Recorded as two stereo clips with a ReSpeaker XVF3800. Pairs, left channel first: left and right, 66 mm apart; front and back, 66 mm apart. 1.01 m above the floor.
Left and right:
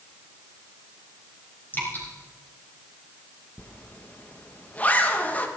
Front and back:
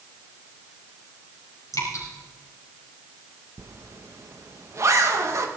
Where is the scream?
No scream in this recording.